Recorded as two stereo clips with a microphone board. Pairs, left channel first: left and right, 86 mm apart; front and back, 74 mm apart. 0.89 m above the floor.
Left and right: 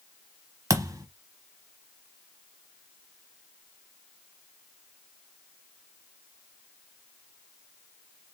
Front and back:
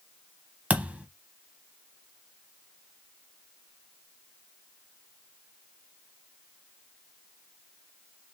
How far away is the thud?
About 0.9 m.